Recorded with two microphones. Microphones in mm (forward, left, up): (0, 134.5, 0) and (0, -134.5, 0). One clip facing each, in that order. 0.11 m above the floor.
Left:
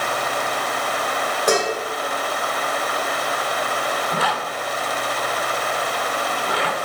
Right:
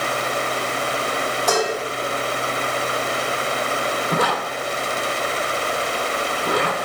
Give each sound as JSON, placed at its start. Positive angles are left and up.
{"t": 1.5, "sound": "dishes clattering", "side_deg": 55, "distance_m": 2.5}
{"t": 4.1, "sound": "a zipper", "side_deg": -50, "distance_m": 0.9}